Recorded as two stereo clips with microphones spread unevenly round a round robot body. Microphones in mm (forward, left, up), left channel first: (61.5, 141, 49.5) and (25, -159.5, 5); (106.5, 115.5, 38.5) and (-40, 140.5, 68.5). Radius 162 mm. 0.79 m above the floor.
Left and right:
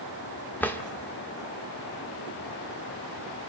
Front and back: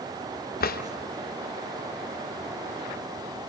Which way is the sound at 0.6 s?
Straight ahead.